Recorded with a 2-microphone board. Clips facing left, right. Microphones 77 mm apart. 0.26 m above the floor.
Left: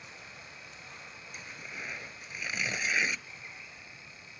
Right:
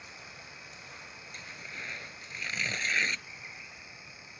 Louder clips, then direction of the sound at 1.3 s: Left 1 dB; 10° left (ahead or behind).